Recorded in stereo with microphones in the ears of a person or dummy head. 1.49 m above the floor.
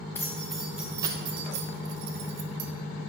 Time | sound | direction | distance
0.1 | keys jangling | 10° left (ahead or behind) | 0.9 m